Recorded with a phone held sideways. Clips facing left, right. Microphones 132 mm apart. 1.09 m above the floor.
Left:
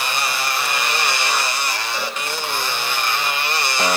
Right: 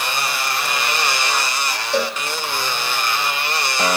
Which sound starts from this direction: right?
A cowbell, at 1.9 s.